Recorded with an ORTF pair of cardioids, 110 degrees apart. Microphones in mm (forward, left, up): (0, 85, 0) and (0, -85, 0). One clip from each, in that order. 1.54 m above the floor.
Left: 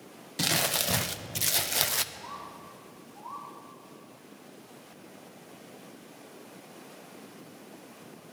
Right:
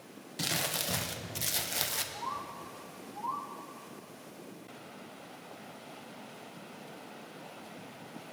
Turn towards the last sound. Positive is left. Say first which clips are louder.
# right 3 dB
turn(degrees=-45)